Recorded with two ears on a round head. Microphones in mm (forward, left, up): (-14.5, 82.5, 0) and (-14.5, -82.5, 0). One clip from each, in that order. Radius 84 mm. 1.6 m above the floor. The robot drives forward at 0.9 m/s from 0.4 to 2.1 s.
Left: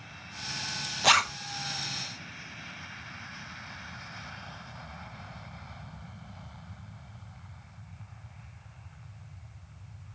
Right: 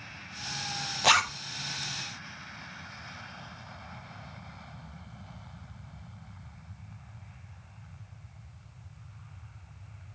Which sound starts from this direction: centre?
A zipper, at 1.0 s.